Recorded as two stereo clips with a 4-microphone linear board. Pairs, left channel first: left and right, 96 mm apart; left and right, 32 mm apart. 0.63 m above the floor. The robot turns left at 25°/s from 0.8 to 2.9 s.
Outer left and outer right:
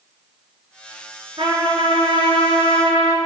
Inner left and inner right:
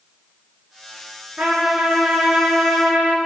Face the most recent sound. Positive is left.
turn(degrees=-95)